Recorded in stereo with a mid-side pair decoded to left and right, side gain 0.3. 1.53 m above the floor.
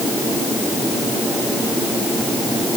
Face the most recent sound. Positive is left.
No sound to turn to.